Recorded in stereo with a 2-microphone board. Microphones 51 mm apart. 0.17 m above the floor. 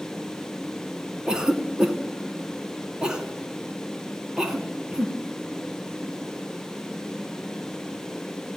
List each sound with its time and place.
1.3 s a cough: 15° right (ahead or behind), 1.4 m